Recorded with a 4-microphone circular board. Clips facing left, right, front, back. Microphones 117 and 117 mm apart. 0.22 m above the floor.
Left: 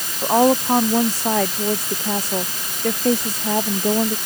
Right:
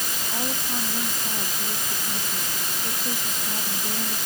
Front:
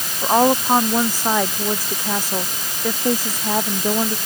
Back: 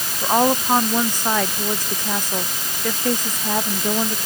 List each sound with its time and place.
0.2 s a woman speaking: 80° left